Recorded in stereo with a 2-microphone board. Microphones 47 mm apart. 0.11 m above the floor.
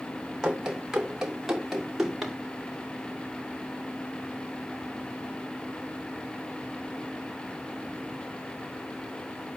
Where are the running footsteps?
15° right (ahead or behind), 3 m; by 2.4 s centre (ahead or behind), 4 m.